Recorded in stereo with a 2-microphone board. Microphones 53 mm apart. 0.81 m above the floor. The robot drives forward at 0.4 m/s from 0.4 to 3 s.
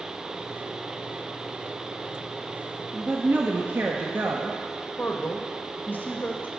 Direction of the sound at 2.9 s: 45° right (ahead or behind).